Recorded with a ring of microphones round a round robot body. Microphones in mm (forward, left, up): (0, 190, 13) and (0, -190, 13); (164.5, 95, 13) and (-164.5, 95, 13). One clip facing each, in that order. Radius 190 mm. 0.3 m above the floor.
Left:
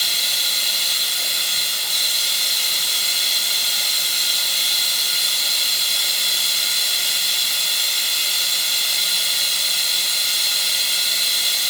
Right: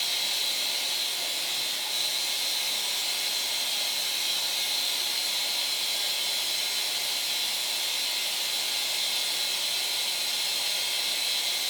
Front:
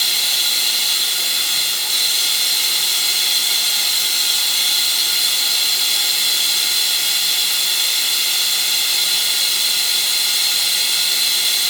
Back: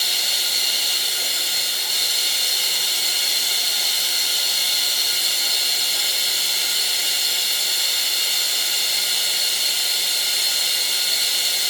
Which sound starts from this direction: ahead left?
Running water, at 0.0 s.